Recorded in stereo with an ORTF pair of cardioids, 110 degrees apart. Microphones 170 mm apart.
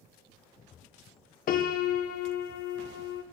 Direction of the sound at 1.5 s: 55° left.